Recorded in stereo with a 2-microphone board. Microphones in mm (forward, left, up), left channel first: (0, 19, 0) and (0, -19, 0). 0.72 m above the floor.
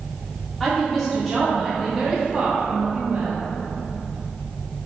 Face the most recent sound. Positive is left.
turn(degrees=-30)  # may be behind; listen again after turning